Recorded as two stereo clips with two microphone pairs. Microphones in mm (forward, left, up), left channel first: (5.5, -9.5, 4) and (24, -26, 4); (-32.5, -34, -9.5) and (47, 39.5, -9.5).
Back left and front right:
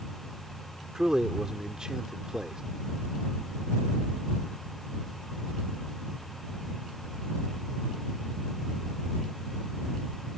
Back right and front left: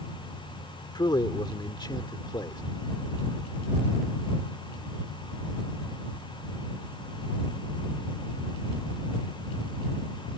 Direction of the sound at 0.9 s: 100° right.